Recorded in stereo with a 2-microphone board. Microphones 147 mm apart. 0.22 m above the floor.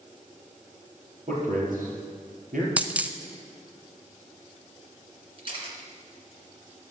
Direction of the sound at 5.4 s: 40° right (ahead or behind).